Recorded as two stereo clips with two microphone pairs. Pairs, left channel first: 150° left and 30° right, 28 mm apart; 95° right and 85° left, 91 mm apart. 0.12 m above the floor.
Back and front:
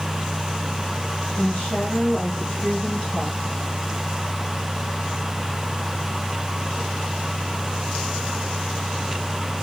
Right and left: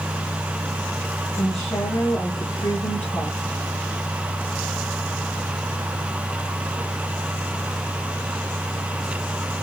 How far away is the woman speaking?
About 6 m.